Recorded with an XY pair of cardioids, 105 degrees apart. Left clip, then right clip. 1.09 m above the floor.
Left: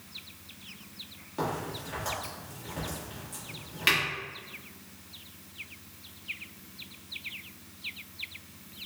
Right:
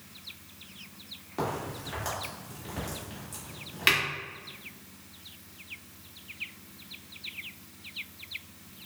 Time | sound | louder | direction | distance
1.4 | a crack | even | 20° right | 1.7 m